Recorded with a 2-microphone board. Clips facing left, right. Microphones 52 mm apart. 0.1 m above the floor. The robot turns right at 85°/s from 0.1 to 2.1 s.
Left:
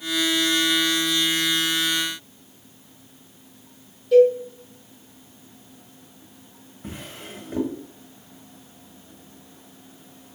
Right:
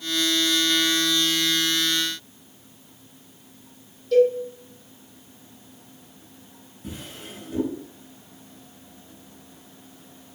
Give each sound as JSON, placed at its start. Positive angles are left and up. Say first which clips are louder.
{"t": 4.1, "sound": "a cowbell", "louder": "left 3 dB", "side_deg": 10, "distance_m": 3.0}
{"t": 6.8, "sound": "a drawer", "louder": "left 1 dB", "side_deg": 45, "distance_m": 4.5}